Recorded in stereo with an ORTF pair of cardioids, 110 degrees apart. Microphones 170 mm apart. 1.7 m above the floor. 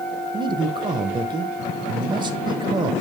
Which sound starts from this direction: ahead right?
A man speaking, at 0.3 s.